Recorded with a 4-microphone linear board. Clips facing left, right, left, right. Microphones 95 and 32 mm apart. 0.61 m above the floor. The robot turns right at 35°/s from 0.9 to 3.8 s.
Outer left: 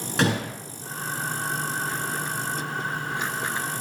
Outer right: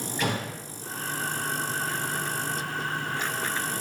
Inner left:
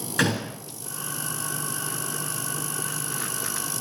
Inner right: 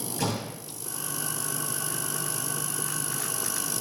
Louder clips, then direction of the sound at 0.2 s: Outer left 6 dB, inner left 7 dB; 80° left.